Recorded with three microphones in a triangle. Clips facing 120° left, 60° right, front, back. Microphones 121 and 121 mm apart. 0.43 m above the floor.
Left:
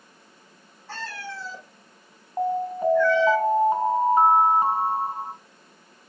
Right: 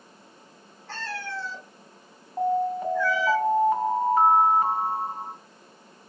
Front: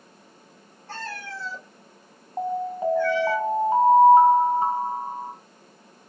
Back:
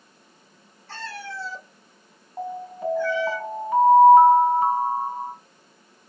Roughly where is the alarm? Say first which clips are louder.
Even, front 5 dB; ahead left.